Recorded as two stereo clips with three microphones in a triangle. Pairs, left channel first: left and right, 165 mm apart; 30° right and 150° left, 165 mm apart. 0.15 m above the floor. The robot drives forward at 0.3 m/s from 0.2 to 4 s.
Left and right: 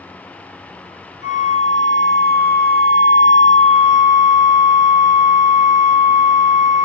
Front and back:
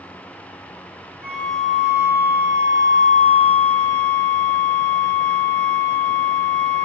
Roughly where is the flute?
Ahead left.